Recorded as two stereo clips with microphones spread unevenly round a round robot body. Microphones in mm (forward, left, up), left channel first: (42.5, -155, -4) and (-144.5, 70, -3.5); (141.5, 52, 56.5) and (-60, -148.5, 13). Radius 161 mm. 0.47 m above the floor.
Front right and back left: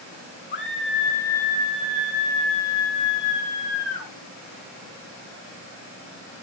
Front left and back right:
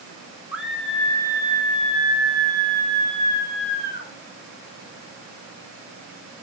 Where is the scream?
65° right, 1.1 m; by 4.1 s 10° right, 2.5 m.